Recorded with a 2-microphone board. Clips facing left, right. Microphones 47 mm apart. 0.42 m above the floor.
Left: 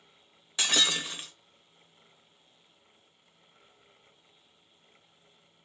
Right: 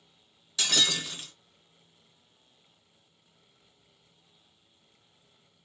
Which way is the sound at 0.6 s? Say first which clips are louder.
Left 1 dB; 25° left (ahead or behind).